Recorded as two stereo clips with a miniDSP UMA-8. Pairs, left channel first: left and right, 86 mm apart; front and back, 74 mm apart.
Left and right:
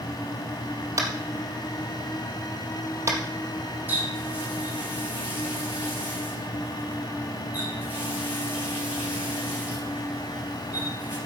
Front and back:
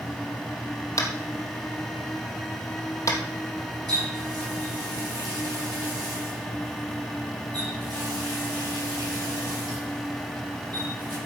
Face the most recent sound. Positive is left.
turn(degrees=-160)